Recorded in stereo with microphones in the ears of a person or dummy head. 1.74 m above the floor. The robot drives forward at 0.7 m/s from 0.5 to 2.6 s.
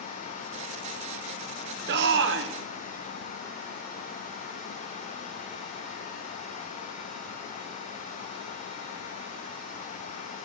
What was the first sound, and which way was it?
A shout, 55° right (ahead or behind).